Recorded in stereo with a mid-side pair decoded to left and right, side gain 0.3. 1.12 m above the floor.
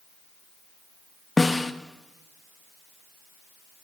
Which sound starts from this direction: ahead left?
A snare drum, at 1.4 s.